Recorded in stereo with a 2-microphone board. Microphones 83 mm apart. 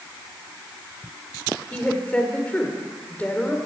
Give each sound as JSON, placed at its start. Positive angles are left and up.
{"t": 1.7, "sound": "a woman speaking", "side_deg": 15, "distance_m": 1.7}